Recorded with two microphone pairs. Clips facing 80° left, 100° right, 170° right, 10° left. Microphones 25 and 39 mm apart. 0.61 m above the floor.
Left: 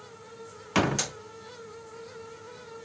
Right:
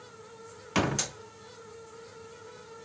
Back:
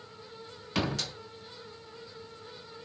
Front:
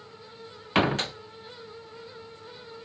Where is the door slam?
5° left, 0.6 m.